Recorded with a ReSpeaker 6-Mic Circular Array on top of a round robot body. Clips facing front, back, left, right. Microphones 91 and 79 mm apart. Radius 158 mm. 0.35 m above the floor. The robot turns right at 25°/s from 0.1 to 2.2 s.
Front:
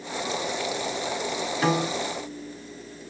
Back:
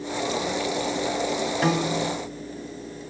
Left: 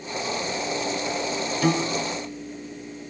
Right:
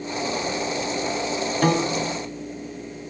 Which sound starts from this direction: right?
A piano, at 1.6 s.